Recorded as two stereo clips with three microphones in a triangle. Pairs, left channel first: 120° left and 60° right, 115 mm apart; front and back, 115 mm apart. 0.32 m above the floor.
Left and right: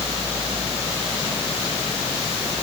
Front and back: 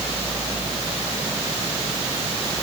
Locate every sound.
Only background noise.